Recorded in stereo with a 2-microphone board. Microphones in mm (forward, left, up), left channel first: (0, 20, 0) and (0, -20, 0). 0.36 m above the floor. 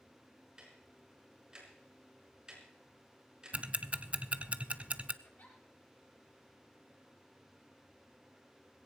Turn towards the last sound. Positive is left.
turn(degrees=60)  # may be behind; listen again after turning